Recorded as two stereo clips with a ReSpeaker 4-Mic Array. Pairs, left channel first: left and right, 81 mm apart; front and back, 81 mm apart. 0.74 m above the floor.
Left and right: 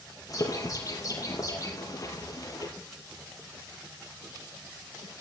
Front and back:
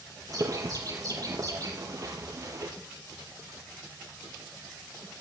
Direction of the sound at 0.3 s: 135° left.